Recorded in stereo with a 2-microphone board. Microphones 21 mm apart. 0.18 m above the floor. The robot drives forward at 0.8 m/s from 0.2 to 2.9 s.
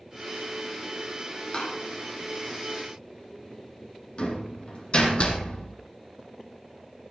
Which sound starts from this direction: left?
A door slam, at 1.5 s.